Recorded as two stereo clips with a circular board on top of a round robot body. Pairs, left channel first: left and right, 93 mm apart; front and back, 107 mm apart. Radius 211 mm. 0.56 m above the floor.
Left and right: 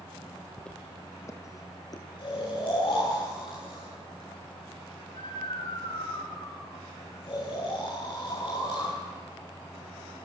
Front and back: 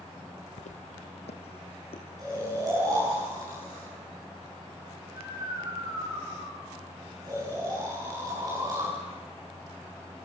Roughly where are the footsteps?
Ahead.